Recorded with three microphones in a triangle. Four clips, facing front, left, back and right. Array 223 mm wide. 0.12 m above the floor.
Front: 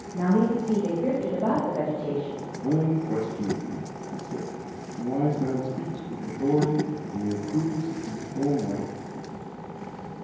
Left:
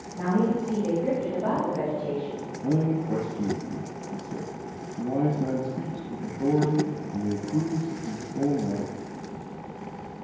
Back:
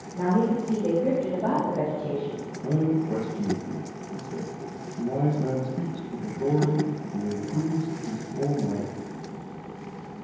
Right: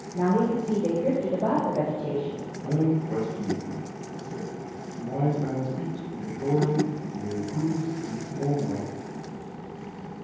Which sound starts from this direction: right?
A woman speaking, at 0.1 s.